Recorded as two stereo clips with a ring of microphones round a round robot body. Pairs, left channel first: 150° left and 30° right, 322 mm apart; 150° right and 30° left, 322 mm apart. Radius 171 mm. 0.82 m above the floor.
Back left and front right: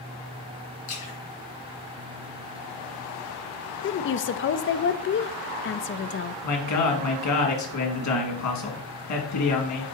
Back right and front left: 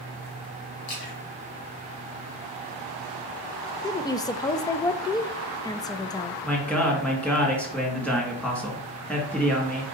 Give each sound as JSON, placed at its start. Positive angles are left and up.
{"t": 0.9, "sound": "a splash", "azimuth_deg": -170, "distance_m": 3.0}
{"t": 3.8, "sound": "a woman speaking", "azimuth_deg": 140, "distance_m": 0.5}
{"t": 6.4, "sound": "a man speaking", "azimuth_deg": 125, "distance_m": 1.8}